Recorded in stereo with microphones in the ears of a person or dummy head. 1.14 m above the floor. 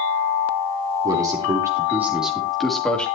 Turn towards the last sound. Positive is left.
turn(degrees=5)  # may be behind; listen again after turning